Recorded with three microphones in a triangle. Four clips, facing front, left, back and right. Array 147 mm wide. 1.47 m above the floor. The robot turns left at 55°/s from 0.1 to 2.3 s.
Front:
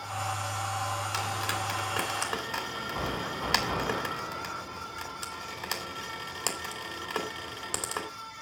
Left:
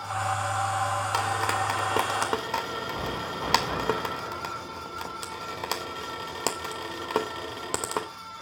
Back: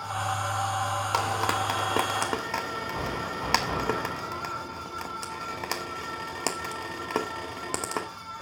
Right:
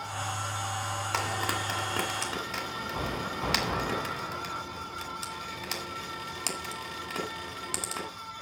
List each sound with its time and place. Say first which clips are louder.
1.1 s frying: left 3 dB, back 6 dB; 170° right, 2 m; by 8.1 s 130° left, 2 m